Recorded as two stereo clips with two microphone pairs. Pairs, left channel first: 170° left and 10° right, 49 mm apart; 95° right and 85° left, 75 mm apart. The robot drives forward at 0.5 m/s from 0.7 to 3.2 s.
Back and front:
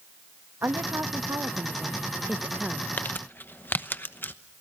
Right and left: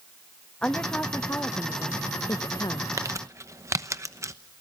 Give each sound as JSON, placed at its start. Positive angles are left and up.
{"t": 0.6, "sound": "a woman speaking", "azimuth_deg": -25, "distance_m": 1.2}
{"t": 3.0, "sound": "crumpling", "azimuth_deg": 120, "distance_m": 0.9}